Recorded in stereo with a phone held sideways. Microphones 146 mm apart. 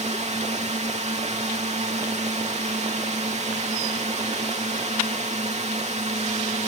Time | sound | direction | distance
0.0 | a drone | 50° right (ahead or behind) | ?